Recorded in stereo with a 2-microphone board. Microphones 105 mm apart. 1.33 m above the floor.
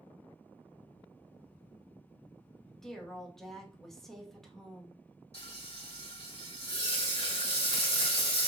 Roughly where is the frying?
Left.